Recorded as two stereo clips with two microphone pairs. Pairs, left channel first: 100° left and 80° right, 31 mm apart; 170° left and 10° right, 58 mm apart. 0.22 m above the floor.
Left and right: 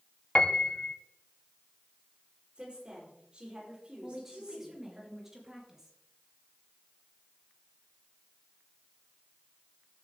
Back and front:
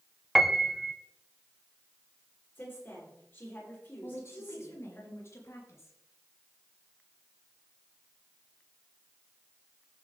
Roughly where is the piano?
Left.